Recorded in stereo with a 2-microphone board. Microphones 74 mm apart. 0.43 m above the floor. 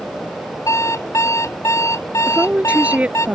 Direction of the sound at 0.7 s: 50° left (ahead or behind).